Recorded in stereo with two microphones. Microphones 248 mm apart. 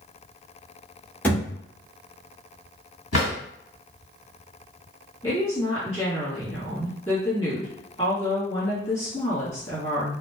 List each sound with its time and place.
1.2 s a thud: 5° left (ahead or behind), 1.0 m
3.1 s a drawer: 65° left (ahead or behind), 1.6 m
5.2 s a woman speaking: 15° left (ahead or behind), 1.6 m